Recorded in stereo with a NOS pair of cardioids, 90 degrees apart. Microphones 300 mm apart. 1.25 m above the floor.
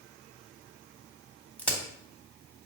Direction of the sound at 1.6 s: 5° left.